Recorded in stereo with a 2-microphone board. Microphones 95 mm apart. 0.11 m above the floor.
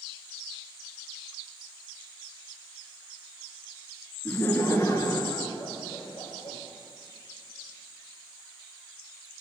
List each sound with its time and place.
4.2 s laughter: 15° left (ahead or behind), 1.2 m; by 6.6 s 60° left (ahead or behind), 2 m